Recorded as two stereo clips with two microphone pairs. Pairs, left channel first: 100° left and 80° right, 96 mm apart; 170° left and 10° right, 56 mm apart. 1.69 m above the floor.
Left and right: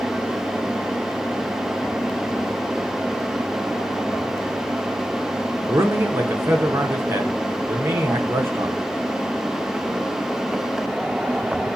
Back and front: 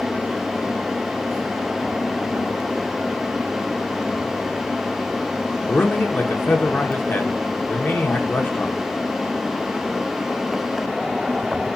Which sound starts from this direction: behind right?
A man speaking, at 5.7 s.